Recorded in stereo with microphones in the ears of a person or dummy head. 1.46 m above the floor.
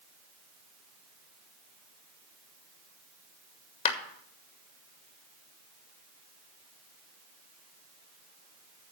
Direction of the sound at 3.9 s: 40° left (ahead or behind).